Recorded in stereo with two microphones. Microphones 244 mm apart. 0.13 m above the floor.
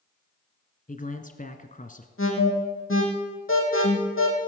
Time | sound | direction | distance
0.9 | a man speaking | 35° left (ahead or behind) | 1.3 m
2.2 | an alarm | 60° left (ahead or behind) | 3.5 m